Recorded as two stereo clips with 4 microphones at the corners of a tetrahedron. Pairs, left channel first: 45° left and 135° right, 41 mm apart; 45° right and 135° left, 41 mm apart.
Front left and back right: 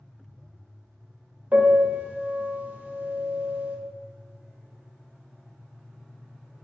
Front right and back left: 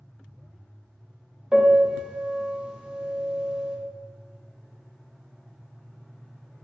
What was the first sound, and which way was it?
A piano, 160° right.